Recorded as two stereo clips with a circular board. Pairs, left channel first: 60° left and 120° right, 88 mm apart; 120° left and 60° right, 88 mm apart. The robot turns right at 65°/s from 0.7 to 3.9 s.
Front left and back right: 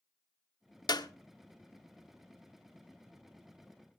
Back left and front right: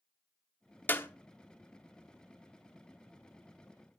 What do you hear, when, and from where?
0.9 s a clap: 60° left, 1.1 m; by 1.1 s 70° left, 1.1 m